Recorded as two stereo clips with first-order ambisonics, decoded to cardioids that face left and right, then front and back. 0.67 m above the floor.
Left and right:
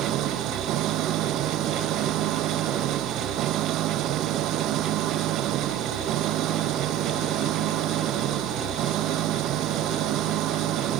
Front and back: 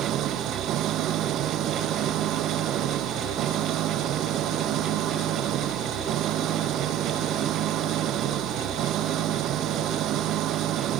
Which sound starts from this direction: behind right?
An engine running, at 0.0 s.